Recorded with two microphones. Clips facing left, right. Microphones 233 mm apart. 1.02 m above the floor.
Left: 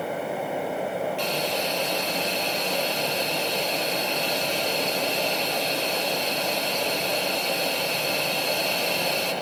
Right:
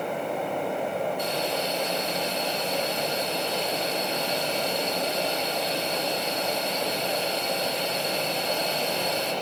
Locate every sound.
1.2 s a hiss: 85° left, 8 m